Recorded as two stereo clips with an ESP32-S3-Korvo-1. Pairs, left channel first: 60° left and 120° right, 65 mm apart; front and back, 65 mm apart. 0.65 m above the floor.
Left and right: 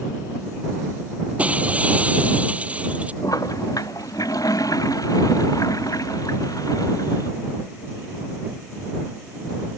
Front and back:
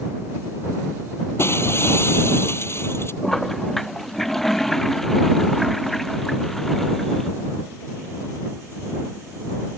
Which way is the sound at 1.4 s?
50° right.